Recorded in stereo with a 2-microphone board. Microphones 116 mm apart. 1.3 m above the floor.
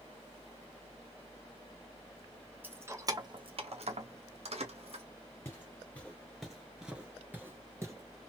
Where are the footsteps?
20° left (ahead or behind), 1.5 m; by 7.9 s 25° right (ahead or behind), 1.4 m.